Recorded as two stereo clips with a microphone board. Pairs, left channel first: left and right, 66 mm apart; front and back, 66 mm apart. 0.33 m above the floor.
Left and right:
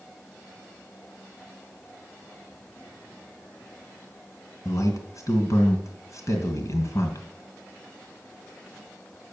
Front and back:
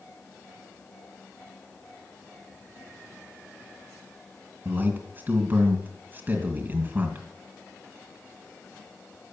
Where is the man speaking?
120° left, 2.5 m.